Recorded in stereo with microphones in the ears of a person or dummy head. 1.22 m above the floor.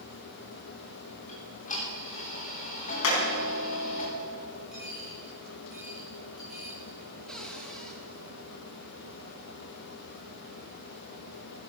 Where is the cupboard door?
5° left (ahead or behind), 1.7 m.